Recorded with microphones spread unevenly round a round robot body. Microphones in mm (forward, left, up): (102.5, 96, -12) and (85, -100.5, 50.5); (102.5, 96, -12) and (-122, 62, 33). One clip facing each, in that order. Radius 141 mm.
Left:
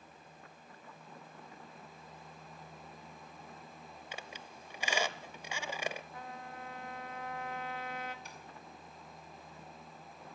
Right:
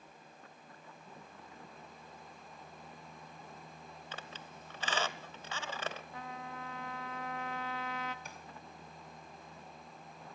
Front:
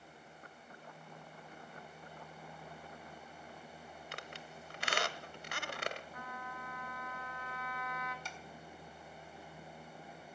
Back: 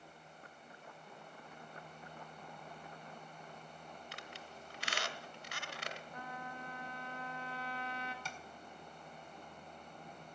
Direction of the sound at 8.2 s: 150° right.